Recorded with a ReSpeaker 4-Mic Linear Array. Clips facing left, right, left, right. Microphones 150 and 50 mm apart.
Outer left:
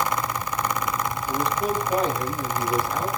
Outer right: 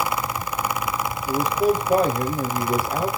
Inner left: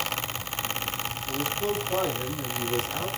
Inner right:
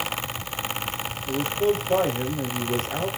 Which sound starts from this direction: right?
A man speaking, at 1.3 s.